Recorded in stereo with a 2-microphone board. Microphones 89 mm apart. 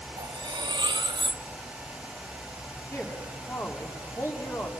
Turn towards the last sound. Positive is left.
turn(degrees=35)  # may be behind; listen again after turning